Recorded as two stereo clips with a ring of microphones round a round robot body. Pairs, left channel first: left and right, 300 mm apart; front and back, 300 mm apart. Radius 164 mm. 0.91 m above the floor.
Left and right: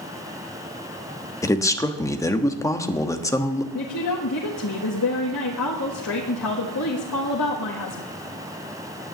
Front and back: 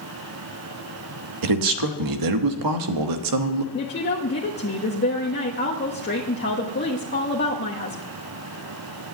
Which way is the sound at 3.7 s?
50° left.